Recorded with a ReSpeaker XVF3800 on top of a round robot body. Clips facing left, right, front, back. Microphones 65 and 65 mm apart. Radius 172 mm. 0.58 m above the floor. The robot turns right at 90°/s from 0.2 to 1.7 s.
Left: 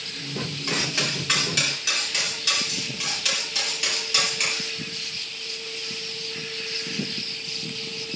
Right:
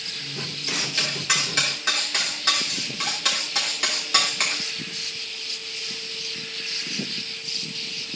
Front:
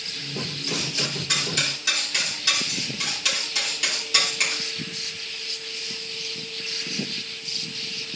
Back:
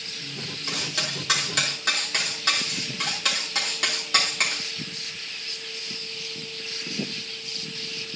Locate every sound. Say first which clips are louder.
0.7 s cutlery clinking: left 2 dB, even; 130° left, 5 m; by 4.7 s 135° right, 5 m